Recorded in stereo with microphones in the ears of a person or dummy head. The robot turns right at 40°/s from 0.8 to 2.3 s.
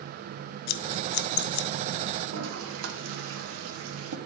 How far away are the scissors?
About 0.7 m.